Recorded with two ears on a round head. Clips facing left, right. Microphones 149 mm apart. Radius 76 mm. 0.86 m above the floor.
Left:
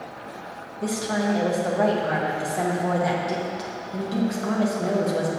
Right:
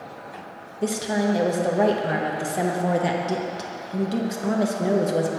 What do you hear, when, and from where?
0.8 s a woman speaking: 25° right (ahead or behind), 0.8 m